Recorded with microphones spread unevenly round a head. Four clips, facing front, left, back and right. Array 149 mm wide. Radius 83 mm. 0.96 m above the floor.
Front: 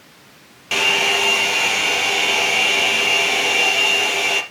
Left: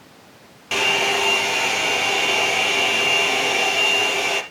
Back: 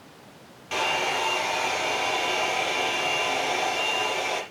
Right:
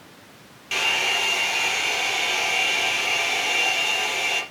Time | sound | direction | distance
0.7 | a hair dryer | 30° left | 4 m